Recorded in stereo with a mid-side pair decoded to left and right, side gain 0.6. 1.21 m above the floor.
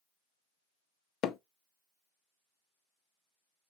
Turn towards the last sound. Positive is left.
turn(degrees=60)